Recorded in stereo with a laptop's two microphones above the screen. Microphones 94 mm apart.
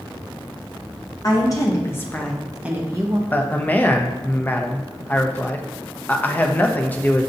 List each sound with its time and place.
1.2 s a woman speaking: 40° left (ahead or behind), 1.0 m; by 3.2 s 40° right (ahead or behind), 0.6 m
3.3 s a man speaking: 20° left (ahead or behind), 0.6 m